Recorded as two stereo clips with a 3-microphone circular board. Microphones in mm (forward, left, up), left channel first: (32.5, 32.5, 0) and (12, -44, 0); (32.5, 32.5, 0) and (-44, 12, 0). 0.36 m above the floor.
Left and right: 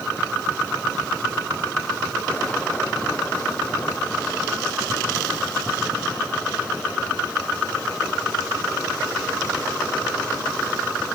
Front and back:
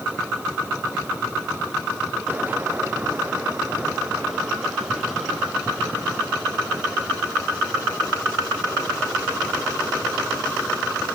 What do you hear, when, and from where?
Only background noise.